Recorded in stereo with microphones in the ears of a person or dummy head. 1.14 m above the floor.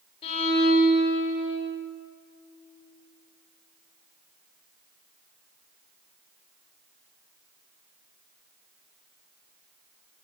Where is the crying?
I don't hear crying.